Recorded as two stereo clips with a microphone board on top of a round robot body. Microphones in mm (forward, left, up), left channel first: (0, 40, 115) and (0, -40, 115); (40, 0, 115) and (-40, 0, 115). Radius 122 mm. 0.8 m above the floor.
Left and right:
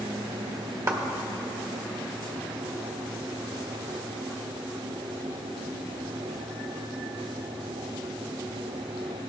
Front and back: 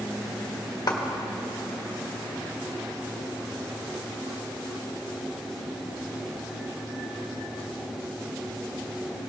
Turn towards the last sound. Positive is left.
turn(degrees=-40)